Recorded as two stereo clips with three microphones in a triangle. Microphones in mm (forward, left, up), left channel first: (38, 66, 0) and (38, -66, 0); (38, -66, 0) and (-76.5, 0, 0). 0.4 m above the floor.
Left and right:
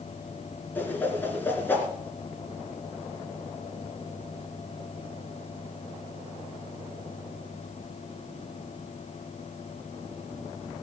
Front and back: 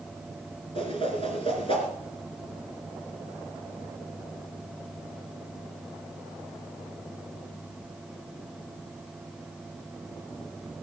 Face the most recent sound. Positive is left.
turn(degrees=15)